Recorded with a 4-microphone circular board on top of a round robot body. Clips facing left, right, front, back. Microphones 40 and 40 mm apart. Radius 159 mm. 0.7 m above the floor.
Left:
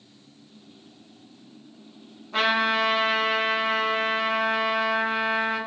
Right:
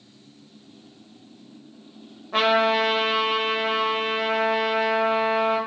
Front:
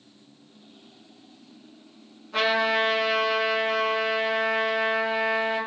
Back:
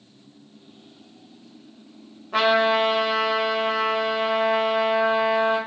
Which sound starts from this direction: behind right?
A trumpet, at 2.3 s.